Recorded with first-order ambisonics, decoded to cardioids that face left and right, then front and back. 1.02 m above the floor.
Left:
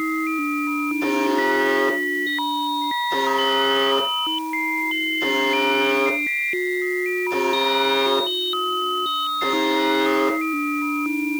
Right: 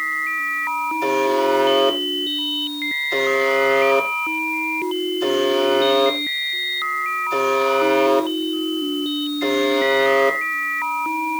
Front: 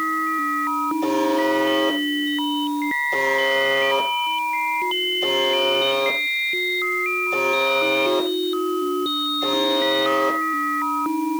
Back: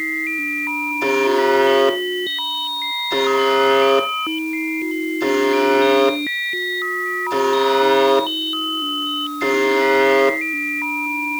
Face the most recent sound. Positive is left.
turn(degrees=170)